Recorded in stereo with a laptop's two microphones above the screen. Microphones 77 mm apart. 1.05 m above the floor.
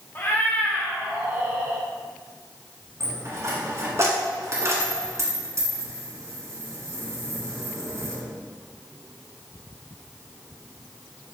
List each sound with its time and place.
0.1 s a cat meowing: 35° left (ahead or behind), 0.7 m; by 1.9 s 35° right (ahead or behind), 1.0 m
3.0 s a dropped coin: 40° right (ahead or behind), 1.2 m